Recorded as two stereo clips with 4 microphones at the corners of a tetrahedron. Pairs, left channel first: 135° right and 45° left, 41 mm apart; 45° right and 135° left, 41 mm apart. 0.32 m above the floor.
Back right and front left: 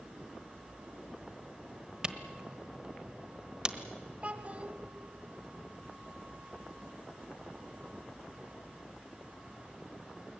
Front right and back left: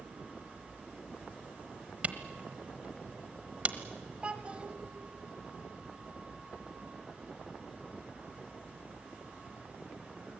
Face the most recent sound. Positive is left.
turn(degrees=85)